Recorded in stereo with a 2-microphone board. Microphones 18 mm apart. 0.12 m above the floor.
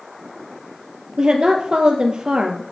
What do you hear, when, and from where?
1.2 s a woman speaking: 50° right (ahead or behind), 2.5 m